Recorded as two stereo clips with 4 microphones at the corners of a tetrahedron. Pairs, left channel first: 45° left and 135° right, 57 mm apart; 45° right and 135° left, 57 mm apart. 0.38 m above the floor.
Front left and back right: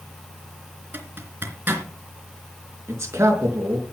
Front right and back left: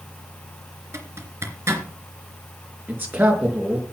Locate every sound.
0.9 s a zipper: 175° left, 3 m
2.9 s a man speaking: 170° right, 5 m